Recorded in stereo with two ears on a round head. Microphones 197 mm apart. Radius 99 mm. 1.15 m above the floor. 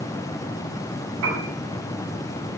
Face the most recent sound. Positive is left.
turn(degrees=-75)  # may be behind; listen again after turning